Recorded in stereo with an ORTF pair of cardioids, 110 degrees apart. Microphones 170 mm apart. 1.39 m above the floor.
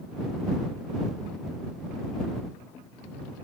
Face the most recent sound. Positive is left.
No sound to turn to.